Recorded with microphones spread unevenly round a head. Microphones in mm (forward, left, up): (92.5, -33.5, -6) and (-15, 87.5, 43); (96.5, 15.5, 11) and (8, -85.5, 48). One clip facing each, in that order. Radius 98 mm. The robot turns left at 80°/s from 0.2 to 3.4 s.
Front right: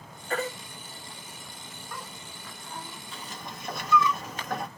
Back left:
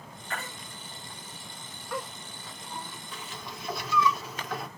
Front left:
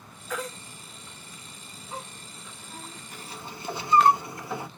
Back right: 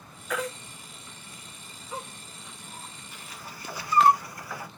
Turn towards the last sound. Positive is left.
turn(degrees=-15)